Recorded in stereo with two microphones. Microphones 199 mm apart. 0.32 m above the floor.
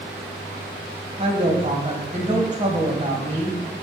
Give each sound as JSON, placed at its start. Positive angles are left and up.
{"t": 1.2, "sound": "a woman speaking", "side_deg": -35, "distance_m": 2.0}